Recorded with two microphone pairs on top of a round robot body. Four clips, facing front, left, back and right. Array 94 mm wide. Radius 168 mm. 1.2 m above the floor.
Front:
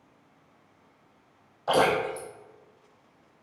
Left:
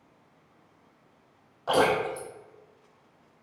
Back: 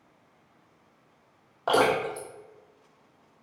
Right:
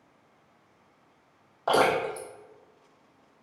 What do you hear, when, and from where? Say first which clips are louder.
1.7 s dripping: even, even; 150° right, 1.8 m